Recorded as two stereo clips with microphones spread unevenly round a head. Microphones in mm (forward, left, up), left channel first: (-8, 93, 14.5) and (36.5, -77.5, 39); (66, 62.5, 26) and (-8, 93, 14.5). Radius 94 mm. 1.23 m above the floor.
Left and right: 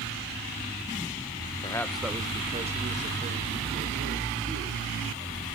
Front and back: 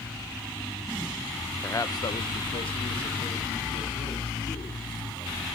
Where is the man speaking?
40° left, 1.0 m; by 5.5 s 40° right, 5.5 m.